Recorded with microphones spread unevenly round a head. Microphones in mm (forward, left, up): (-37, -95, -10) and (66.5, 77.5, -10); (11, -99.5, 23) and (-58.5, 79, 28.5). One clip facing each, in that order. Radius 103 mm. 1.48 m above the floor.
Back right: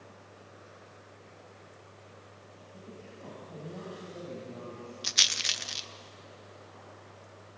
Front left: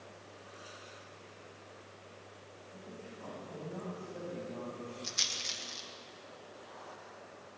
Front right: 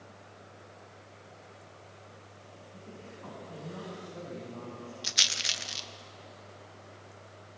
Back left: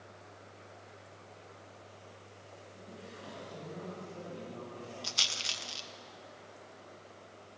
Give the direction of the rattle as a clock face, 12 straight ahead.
5 o'clock.